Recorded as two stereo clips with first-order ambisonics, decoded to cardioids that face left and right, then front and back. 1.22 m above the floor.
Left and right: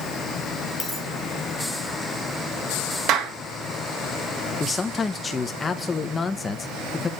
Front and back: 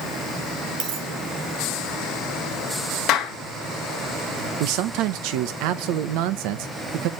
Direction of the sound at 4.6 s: 165° left.